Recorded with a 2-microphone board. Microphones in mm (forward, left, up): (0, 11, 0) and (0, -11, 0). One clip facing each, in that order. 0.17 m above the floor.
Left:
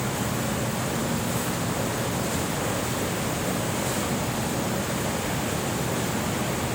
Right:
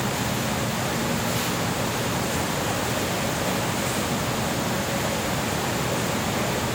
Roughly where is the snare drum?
I don't hear a snare drum.